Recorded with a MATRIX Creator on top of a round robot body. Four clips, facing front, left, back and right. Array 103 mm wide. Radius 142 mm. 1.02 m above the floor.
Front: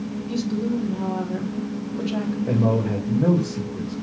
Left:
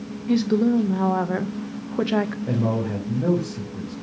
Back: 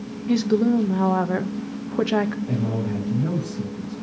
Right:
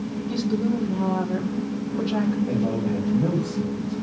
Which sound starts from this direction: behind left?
A woman speaking, at 0.3 s.